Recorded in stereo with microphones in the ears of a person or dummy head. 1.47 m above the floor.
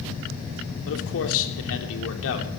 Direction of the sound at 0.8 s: 75° left (ahead or behind).